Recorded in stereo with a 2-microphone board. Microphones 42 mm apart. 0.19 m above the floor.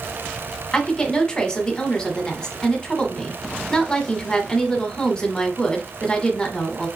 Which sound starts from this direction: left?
A woman speaking, at 0.7 s.